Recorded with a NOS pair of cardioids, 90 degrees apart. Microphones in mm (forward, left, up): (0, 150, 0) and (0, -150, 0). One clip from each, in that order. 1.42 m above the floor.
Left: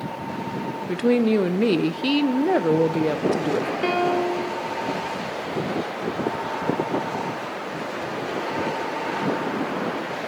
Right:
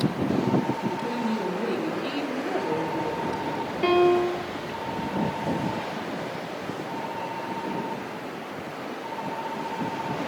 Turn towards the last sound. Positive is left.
turn(degrees=0)